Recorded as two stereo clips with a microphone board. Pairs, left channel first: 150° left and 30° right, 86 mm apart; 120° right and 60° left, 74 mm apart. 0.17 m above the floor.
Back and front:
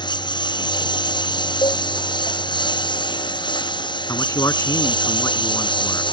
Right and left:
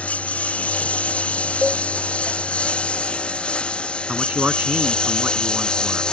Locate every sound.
0.0 s a lawn mower: 170° left; by 6.1 s 160° left
1.6 s a cowbell: 135° left
4.1 s a man speaking: 125° left